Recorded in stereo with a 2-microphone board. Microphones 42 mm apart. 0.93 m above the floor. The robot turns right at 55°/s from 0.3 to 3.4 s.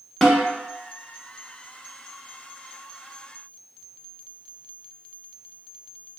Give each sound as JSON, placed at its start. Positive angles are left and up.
{"t": 0.2, "sound": "a snare drum", "side_deg": 5, "distance_m": 0.9}